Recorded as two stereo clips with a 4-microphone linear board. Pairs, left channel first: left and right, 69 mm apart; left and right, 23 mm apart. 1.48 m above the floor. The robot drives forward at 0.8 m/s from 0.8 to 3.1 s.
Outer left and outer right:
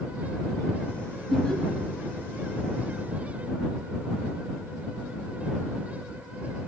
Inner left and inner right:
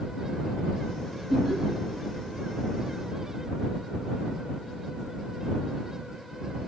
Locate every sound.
1.3 s laughter: 5° left (ahead or behind), 2 m